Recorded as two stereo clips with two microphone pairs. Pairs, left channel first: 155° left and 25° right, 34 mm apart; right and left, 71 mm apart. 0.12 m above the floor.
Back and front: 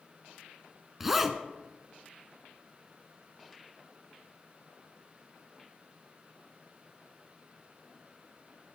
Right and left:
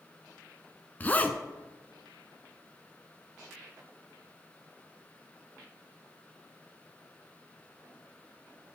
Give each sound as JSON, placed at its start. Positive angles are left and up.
{"t": 1.0, "sound": "a zipper", "azimuth_deg": -90, "distance_m": 0.5}